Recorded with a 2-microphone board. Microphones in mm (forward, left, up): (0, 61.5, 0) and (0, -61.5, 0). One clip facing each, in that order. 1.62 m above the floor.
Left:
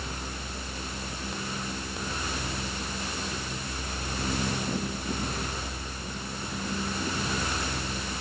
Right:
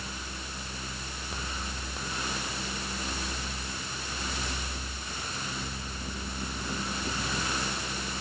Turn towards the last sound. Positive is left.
No sound to turn to.